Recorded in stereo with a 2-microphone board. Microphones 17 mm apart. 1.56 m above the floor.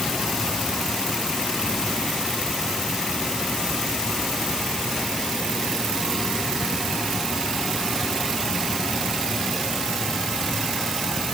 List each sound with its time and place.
Only background noise.